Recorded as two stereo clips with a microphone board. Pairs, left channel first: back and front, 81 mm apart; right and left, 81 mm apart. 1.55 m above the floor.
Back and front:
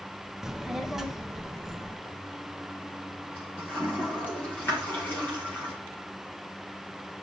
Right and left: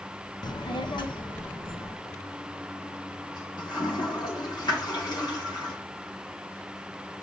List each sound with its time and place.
0.4 s a child speaking: 80° right, 0.7 m; by 1.9 s 85° right, 2.5 m
2.0 s a toilet flushing: 115° right, 4 m